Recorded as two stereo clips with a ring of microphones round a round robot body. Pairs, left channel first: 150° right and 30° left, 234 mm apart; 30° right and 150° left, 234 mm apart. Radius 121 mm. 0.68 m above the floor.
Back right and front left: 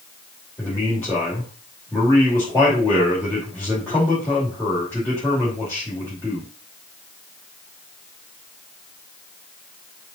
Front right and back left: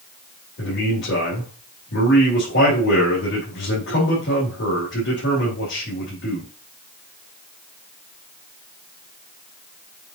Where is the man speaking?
70° right, 2.5 m.